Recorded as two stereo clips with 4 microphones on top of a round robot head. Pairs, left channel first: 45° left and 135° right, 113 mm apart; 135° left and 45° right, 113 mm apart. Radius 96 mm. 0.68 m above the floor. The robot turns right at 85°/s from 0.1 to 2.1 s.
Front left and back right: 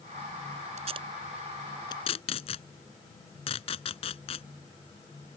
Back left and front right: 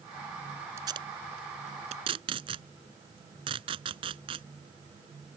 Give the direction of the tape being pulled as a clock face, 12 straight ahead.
4 o'clock.